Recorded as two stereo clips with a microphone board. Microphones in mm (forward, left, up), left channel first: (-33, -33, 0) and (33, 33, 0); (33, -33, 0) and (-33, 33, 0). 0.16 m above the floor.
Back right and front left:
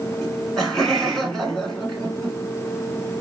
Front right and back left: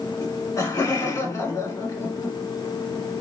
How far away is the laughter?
About 1.6 m.